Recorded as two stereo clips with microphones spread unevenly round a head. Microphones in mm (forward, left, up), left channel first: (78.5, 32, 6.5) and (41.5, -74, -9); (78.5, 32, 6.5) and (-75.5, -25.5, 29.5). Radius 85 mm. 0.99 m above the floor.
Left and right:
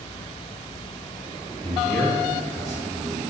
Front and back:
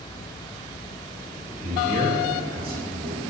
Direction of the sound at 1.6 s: 160° left.